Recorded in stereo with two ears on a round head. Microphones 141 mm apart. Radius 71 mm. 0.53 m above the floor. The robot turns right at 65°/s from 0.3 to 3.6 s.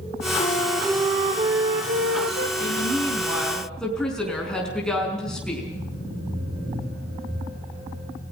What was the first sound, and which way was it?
A flute, 145° left.